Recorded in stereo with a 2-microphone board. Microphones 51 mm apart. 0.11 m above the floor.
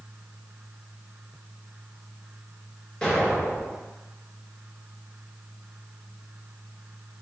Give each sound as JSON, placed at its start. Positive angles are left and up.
{"t": 3.0, "sound": "an explosion", "side_deg": 15, "distance_m": 1.8}